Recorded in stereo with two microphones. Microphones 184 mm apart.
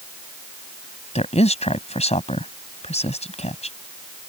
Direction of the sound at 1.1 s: 35° left (ahead or behind).